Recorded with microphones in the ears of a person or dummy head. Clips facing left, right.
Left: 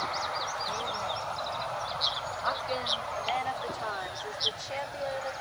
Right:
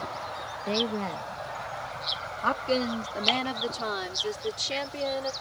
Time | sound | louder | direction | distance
0.7 | a woman speaking | right 11 dB | 80° right | ?